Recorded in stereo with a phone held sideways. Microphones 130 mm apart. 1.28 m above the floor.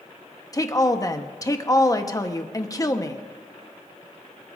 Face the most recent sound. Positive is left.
turn(degrees=30)  # may be behind; listen again after turning